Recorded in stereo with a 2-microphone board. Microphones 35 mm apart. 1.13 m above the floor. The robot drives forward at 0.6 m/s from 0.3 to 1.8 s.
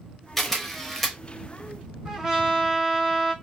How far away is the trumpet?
About 1.8 m.